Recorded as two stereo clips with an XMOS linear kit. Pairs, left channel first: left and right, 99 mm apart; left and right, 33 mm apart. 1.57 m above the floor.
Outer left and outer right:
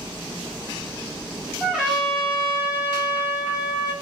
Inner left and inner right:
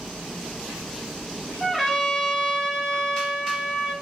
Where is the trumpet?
10° right (ahead or behind), 1.8 m.